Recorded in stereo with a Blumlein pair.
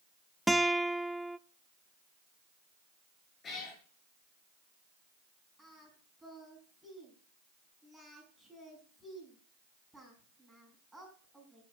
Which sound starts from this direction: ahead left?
A cat meowing, at 3.4 s.